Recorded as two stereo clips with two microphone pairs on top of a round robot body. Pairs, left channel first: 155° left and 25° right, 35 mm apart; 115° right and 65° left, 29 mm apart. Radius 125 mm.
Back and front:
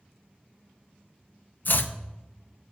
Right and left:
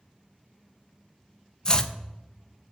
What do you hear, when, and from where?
1.6 s chopping: 165° right, 0.5 m